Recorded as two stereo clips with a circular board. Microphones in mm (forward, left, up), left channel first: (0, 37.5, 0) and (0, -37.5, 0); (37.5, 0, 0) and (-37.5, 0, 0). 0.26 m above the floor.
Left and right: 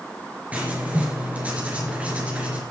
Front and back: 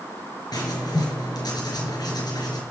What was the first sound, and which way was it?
Writing, 20° right.